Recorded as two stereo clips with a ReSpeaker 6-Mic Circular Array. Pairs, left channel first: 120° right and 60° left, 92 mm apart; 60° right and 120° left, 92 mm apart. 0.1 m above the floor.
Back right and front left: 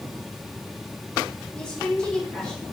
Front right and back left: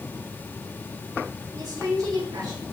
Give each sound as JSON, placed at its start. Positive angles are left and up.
{"t": 1.6, "sound": "a woman speaking", "azimuth_deg": 160, "distance_m": 4.0}